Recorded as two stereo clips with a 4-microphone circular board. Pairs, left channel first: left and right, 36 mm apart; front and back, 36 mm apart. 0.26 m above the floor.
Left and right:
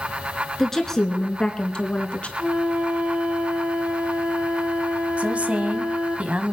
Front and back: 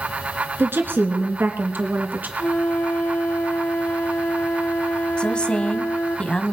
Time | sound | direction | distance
0.6 | a woman speaking | 170° left | 3 m
2.4 | a flute | 40° right | 3 m
5.2 | a woman speaking | 55° right | 1.5 m